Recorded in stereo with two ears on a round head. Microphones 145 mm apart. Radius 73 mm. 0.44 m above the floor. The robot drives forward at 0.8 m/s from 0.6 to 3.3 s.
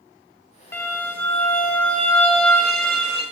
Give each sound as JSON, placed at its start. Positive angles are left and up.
{"t": 0.7, "sound": "a violin", "side_deg": 15, "distance_m": 1.0}